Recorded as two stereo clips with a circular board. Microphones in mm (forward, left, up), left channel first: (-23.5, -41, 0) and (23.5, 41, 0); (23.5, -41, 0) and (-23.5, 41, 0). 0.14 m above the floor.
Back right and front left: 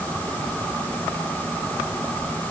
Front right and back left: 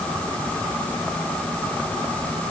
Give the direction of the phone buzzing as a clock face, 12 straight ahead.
I don't hear a phone buzzing.